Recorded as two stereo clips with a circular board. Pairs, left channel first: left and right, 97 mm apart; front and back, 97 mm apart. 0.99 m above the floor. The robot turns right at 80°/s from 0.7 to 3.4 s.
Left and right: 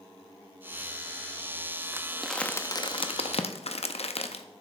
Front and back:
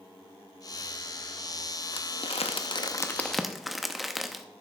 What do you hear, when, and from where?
1.9 s crumpling: 25° right, 0.7 m; by 4.4 s 90° left, 0.7 m